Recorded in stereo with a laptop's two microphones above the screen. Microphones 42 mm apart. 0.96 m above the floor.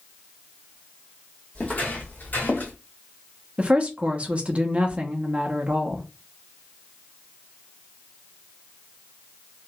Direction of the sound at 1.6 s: 40° left (ahead or behind).